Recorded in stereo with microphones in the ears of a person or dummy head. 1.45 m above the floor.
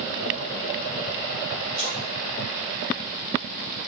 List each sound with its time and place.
1.8 s a splash: 35° right (ahead or behind), 1.8 m